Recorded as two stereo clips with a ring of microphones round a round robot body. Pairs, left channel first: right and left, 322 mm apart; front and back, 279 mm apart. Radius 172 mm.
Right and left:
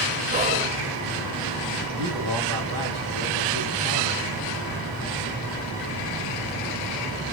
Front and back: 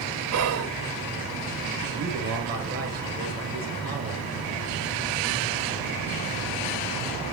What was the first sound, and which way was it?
Whispering, 155° left.